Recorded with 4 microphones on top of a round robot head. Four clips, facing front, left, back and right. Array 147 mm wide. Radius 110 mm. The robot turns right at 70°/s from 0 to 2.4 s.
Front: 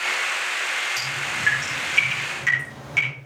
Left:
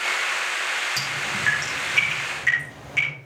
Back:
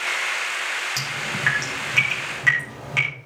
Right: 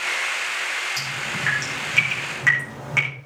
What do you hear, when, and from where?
1.0 s dripping: 145° left, 5.5 m; by 3.1 s 115° right, 5.5 m